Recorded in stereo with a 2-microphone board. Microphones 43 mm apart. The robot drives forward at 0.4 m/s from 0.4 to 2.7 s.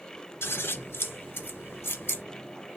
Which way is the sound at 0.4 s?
75° left (ahead or behind).